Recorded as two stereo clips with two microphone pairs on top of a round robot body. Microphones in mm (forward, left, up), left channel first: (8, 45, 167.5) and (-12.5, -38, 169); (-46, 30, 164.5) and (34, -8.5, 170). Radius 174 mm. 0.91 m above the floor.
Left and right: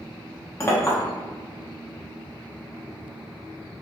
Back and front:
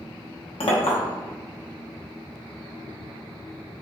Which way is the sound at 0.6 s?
135° left.